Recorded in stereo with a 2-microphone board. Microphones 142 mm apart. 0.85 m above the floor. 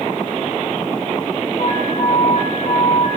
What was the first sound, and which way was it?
An alarm, 55° left (ahead or behind).